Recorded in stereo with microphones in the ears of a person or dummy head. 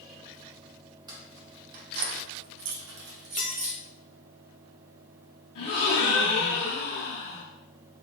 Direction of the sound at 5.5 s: 40° left (ahead or behind).